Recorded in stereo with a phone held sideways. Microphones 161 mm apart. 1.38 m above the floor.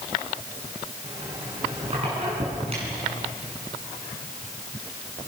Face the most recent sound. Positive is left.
turn(degrees=-40)  # may be behind; listen again after turning